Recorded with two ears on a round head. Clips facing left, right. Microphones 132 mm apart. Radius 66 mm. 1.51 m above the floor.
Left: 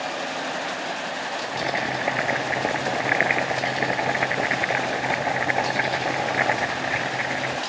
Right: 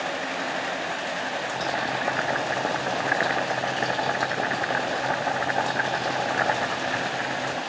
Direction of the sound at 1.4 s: 15° left (ahead or behind).